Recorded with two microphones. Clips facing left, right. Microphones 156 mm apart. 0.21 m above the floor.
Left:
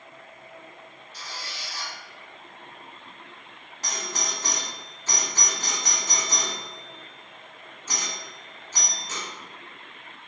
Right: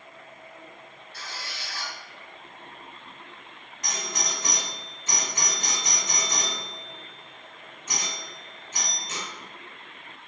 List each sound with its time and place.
1.1 s a squeak: 60° right (ahead or behind), 1.3 m
3.8 s a doorbell: 35° left (ahead or behind), 1.8 m